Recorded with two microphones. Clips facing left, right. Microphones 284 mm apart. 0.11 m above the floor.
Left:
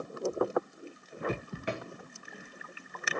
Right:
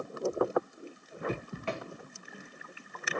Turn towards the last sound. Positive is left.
turn(degrees=15)  # may be behind; listen again after turning